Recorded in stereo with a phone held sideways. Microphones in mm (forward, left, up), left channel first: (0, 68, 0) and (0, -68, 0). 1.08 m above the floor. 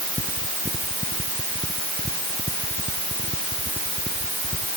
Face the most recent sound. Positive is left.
No sound to turn to.